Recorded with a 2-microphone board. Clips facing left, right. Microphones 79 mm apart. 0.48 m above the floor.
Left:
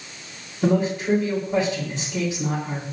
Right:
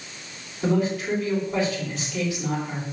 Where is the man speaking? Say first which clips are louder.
Left 2 dB; 30° left (ahead or behind), 1.9 m.